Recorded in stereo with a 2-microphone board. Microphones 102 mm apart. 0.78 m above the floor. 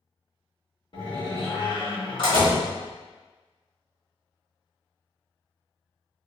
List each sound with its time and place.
0.9 s a door slam: 50° left (ahead or behind), 1.4 m